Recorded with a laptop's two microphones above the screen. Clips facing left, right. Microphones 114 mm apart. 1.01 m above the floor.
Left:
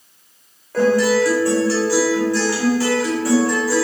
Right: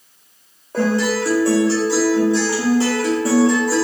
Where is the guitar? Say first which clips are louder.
Left 3 dB; 20° right (ahead or behind), 0.6 m.